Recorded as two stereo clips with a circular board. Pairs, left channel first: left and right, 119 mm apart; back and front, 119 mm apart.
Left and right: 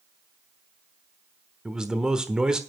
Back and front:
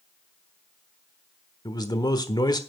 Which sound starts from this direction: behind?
A man speaking, at 1.6 s.